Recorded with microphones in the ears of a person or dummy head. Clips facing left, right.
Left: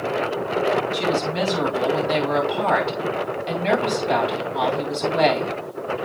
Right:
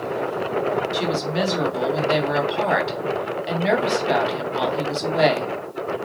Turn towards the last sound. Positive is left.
turn(degrees=-10)  # may be behind; listen again after turning